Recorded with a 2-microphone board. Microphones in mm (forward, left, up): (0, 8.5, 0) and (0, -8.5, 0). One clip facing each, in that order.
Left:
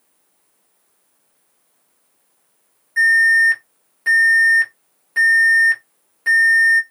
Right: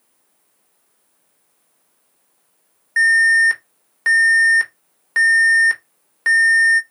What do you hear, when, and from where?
3.0 s an alarm: 45° right (ahead or behind), 2 m